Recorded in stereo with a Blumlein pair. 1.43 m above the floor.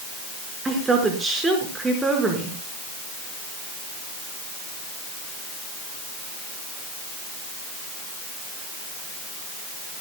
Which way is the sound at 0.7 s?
15° right.